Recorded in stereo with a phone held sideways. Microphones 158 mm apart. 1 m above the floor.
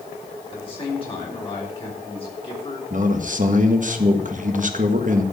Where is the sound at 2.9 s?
55° right (ahead or behind), 1.3 m.